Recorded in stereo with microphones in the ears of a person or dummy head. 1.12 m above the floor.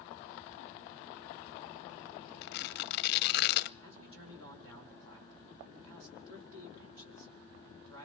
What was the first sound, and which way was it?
Tearing paper, 60° left (ahead or behind).